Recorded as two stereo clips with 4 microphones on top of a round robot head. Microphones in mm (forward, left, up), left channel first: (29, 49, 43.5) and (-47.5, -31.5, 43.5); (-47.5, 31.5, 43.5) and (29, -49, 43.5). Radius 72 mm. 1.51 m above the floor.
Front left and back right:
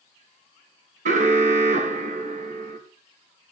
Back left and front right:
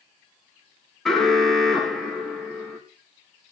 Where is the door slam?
I don't hear a door slam.